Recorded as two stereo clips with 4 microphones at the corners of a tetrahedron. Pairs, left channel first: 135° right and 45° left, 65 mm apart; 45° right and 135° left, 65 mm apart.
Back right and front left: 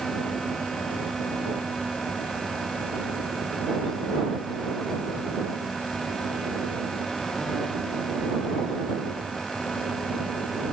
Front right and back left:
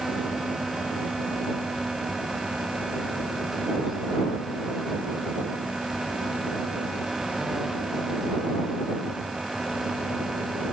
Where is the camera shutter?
I don't hear a camera shutter.